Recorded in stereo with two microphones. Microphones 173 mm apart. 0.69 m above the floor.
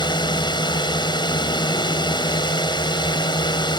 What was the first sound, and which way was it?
A drone, 25° left (ahead or behind).